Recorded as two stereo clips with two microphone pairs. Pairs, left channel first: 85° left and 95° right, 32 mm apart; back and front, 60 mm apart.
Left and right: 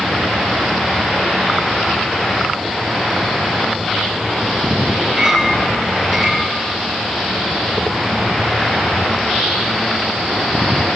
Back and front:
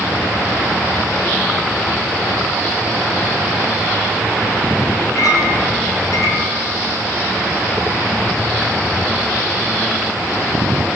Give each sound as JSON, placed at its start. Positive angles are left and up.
{"t": 5.2, "sound": "a clink", "azimuth_deg": 180, "distance_m": 6.5}